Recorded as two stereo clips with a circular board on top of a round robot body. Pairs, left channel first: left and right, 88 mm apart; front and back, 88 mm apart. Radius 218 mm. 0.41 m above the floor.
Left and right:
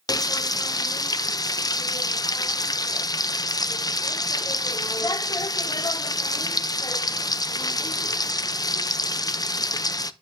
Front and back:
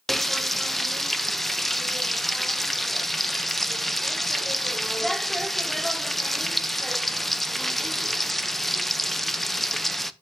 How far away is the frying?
About 0.7 m.